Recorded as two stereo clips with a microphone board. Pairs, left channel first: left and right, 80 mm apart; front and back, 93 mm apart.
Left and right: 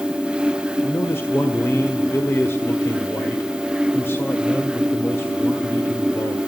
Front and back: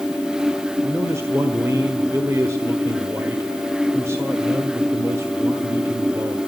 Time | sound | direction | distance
0.8 | a man speaking | 135° left | 1.5 m